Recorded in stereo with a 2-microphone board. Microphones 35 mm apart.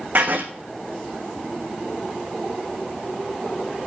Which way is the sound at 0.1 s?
60° right (ahead or behind).